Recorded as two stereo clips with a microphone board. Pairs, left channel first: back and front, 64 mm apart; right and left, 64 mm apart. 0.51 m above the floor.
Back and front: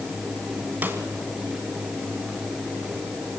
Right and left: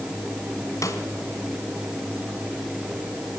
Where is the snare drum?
60° right, 2.5 m.